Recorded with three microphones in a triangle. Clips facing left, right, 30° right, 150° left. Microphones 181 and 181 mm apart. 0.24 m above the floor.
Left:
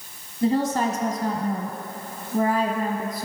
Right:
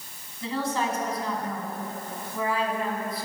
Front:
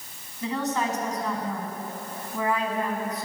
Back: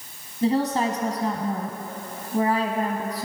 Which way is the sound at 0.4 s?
110° left.